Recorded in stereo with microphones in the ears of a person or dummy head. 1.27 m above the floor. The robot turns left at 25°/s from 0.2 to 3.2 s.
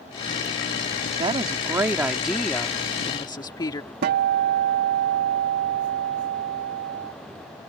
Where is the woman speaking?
150° right; by 3.9 s 160° left.